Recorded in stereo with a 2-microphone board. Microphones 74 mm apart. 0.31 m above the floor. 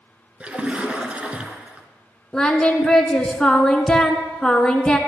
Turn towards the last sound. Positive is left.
turn(degrees=10)  # may be behind; listen again after turning